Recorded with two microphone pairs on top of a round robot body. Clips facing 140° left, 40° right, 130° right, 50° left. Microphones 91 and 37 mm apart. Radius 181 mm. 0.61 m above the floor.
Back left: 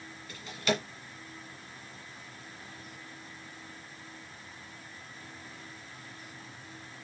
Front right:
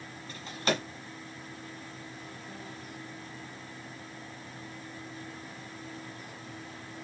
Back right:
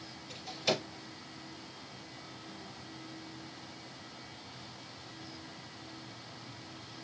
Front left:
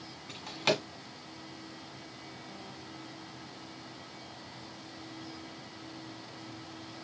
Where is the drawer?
15° left, 1.8 m.